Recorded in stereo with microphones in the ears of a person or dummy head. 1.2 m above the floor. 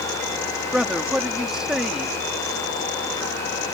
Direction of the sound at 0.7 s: Centre (ahead or behind).